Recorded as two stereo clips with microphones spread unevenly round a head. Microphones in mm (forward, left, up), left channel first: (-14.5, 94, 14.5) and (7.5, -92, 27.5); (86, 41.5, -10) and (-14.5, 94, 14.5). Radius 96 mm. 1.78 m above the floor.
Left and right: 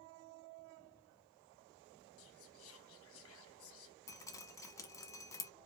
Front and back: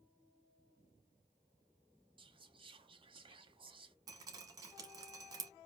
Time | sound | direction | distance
2.2 | whispering | 110° left | 1.3 m
4.1 | dripping | 170° left | 1.0 m